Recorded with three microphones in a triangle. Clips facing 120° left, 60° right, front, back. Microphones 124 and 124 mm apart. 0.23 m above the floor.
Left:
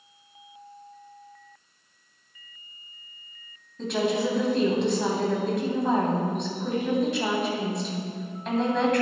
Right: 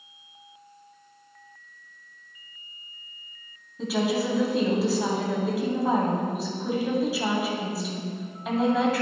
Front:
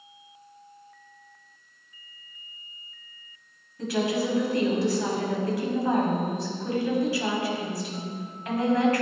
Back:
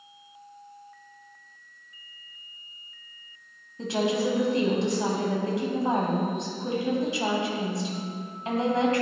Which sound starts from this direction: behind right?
A woman speaking, at 3.8 s.